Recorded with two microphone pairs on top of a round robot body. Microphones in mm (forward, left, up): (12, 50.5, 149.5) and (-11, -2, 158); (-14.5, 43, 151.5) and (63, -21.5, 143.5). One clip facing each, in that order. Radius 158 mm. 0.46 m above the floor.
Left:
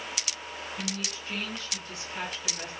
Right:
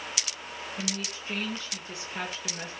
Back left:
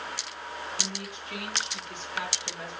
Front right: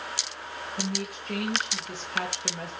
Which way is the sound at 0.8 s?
50° right.